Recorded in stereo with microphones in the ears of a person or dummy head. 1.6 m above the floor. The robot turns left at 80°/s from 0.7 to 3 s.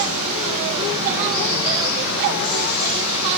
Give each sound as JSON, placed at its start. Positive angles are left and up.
{"t": 0.0, "sound": "running water", "azimuth_deg": -135, "distance_m": 5.0}